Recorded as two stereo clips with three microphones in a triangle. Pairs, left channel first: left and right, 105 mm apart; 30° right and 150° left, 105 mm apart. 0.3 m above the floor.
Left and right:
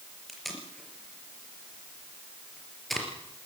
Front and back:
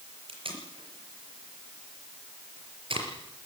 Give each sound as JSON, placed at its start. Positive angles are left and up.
{"t": 0.3, "sound": "tape being pulled", "azimuth_deg": 180, "distance_m": 4.5}